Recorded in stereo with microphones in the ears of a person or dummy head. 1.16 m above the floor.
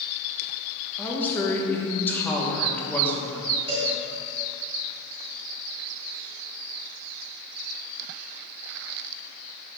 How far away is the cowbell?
About 1.5 m.